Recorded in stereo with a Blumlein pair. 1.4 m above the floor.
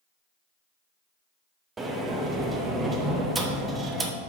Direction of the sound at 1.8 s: 15° right.